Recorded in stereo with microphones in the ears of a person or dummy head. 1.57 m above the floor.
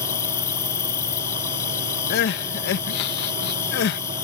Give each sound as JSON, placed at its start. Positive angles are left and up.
{"t": 0.0, "sound": "an insect", "side_deg": 15}
{"t": 2.1, "sound": "crying", "side_deg": 55}